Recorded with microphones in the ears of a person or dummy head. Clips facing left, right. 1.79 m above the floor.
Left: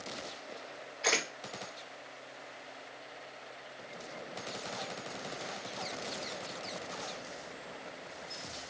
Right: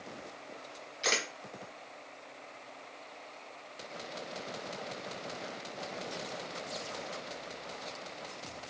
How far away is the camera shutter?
About 1.5 m.